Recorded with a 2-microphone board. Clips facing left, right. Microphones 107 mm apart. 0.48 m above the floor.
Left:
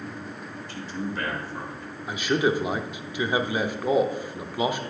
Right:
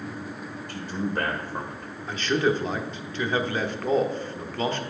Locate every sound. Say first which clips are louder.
0.7 s a man speaking: right 3 dB; 55° right (ahead or behind), 1.8 m
2.1 s a man speaking: even; 10° left (ahead or behind), 0.7 m